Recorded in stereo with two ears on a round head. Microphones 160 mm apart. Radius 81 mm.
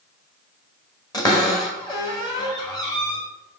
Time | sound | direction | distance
1.1 | a cupboard door | 20° left (ahead or behind) | 1.3 m